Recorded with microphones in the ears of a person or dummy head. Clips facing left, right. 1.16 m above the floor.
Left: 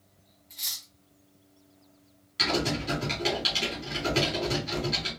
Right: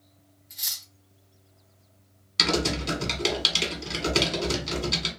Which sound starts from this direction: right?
Typing on a keyboard, at 2.4 s.